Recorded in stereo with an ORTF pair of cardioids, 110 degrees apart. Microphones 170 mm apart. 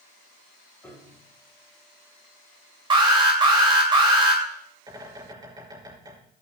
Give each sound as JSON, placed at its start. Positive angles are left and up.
{"t": 0.8, "sound": "a piano", "azimuth_deg": 10, "distance_m": 3.5}
{"t": 2.9, "sound": "an alarm", "azimuth_deg": -30, "distance_m": 2.5}
{"t": 4.9, "sound": "a bird", "azimuth_deg": -25, "distance_m": 6.0}